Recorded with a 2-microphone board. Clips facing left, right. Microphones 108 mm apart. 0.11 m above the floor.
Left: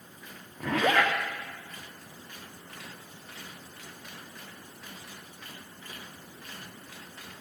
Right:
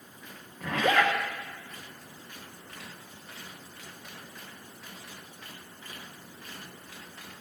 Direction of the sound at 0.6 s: 75° left (ahead or behind).